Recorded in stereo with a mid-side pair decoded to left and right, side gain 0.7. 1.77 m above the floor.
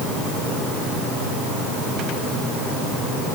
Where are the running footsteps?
No running footsteps in this recording.